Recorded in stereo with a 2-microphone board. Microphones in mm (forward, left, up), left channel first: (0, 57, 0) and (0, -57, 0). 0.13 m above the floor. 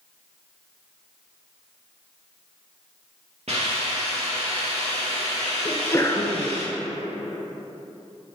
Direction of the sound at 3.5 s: 60° right (ahead or behind).